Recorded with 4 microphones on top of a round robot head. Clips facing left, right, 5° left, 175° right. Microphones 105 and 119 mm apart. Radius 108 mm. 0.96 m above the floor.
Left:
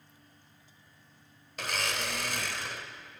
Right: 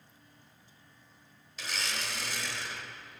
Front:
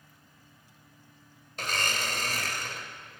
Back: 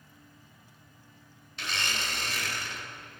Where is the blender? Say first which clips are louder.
Left 4 dB, front 3 dB; 50° left, 2.5 m.